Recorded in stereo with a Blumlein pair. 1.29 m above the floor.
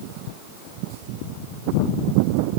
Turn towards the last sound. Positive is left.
No sound to turn to.